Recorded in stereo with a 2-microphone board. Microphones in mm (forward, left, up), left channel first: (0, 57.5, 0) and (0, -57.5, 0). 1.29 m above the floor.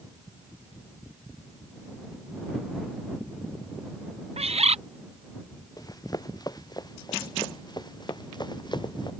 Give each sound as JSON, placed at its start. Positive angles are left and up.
{"t": 4.4, "sound": "a bird", "side_deg": -70}
{"t": 5.8, "sound": "running footsteps", "side_deg": 35}